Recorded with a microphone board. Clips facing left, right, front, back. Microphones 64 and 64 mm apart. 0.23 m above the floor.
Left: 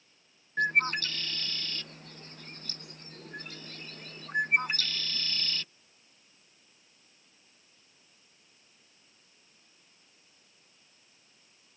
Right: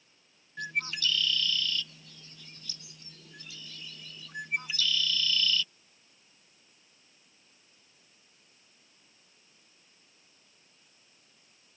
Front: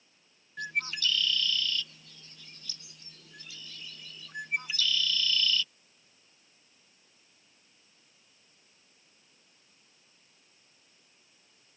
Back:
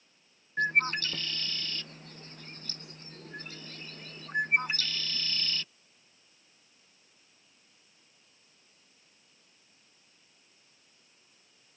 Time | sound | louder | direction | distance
0.6 | a bird | left 7 dB, back 6 dB | 135° left | ?